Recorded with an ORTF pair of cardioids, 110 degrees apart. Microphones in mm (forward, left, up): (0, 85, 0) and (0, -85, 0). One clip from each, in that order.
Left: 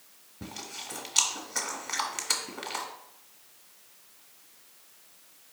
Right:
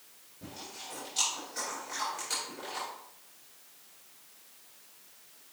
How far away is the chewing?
About 1.3 m.